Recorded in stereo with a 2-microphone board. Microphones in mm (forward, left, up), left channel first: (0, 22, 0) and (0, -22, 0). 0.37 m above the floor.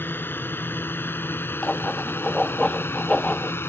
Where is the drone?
55° left (ahead or behind); by 3.7 s 70° left (ahead or behind).